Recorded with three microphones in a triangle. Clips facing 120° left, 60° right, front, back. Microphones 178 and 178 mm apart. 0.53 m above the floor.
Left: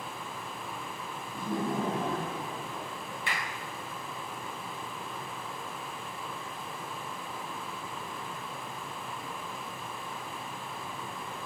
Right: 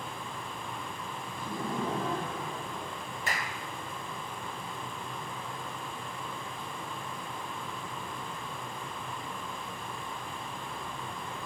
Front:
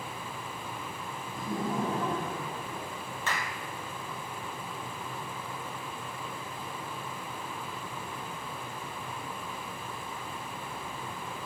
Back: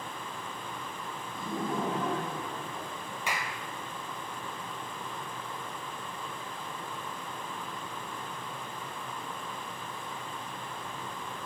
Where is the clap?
100° right, 2 m.